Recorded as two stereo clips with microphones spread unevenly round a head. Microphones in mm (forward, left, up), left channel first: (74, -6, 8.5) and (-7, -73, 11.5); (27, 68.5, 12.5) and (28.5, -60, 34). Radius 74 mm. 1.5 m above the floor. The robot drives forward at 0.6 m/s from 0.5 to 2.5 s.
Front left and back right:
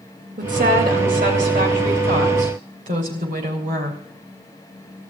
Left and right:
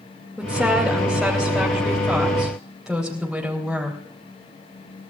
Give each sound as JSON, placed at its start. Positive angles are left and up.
{"t": 0.4, "sound": "a woman speaking", "azimuth_deg": -175, "distance_m": 2.5}